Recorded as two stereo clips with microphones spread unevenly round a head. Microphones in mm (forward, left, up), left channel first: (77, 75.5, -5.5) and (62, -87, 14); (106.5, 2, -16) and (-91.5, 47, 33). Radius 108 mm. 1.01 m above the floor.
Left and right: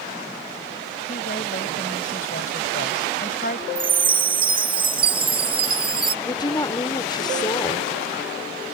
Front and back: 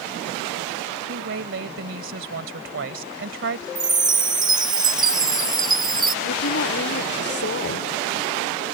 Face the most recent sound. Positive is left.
turn(degrees=20)